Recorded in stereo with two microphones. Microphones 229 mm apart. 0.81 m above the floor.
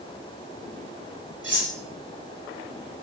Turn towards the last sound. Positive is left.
turn(degrees=-50)  # may be behind; listen again after turning